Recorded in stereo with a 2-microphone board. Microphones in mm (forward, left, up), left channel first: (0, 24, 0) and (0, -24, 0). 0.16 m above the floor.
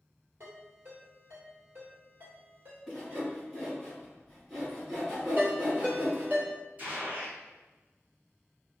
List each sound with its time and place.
0.4 s a ringtone: 50° right (ahead or behind), 1.7 m
2.9 s sawing: 10° right (ahead or behind), 1.7 m
5.4 s a ringtone: 45° right (ahead or behind), 1.3 m
6.8 s a gunshot: 40° right (ahead or behind), 1.9 m